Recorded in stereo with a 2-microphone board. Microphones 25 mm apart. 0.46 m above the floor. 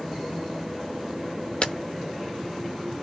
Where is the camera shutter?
50° left (ahead or behind), 0.7 m.